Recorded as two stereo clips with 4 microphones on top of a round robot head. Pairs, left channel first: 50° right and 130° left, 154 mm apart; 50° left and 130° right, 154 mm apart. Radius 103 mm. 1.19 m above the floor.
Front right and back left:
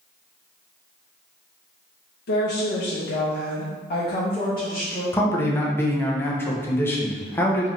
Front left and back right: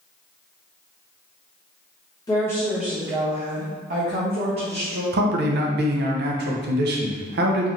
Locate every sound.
2.3 s a woman speaking: 20° right, 0.8 m; by 5.0 s 120° right, 1.4 m
5.1 s a man speaking: 125° right, 0.8 m